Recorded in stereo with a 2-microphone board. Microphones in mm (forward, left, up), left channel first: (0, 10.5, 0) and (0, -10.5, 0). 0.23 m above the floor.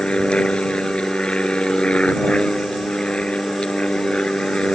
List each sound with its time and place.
0.0 s an aircraft: 50° left (ahead or behind)